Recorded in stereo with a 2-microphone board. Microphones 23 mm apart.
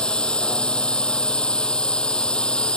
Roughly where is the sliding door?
I don't hear a sliding door.